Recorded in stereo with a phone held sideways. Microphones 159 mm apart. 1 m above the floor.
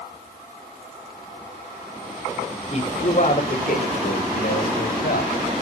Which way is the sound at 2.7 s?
45° left (ahead or behind).